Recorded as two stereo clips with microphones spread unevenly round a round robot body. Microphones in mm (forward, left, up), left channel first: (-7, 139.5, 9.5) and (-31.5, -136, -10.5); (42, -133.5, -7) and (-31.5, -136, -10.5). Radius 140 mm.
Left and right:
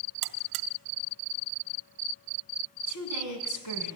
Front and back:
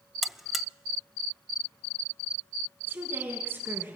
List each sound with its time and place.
0.2 s a buzzer: 85° right, 0.7 m
2.9 s a woman speaking: 105° left, 4.5 m